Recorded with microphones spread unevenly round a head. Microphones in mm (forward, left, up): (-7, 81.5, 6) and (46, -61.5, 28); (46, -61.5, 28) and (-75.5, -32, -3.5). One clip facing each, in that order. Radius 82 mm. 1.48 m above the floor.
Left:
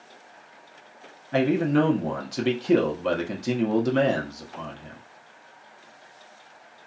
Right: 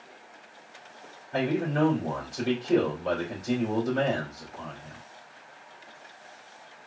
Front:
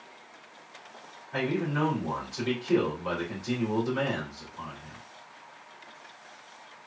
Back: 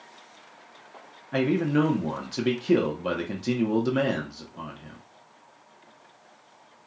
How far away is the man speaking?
About 1.0 m.